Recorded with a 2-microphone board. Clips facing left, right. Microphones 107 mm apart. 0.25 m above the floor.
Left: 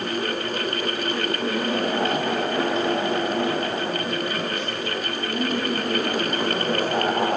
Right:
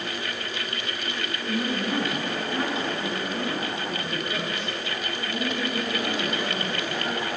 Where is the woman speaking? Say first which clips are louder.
Even; 15° right (ahead or behind), 2.5 m; by 7.4 s 35° left (ahead or behind), 3.5 m.